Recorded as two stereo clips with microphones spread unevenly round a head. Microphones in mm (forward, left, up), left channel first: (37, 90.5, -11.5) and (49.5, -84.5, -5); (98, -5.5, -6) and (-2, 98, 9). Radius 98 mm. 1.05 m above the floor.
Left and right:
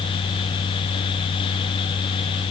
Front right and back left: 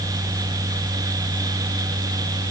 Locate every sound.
Only background noise.